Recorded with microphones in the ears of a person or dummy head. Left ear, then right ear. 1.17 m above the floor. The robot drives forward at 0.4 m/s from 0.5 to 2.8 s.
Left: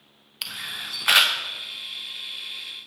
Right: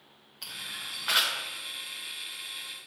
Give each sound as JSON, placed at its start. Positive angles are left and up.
{"t": 0.4, "sound": "a camera shutter", "side_deg": 65, "distance_m": 0.8}